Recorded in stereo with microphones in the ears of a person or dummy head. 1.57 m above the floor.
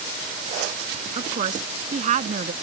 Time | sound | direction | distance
1.1 | a woman speaking | 40° right (ahead or behind) | ?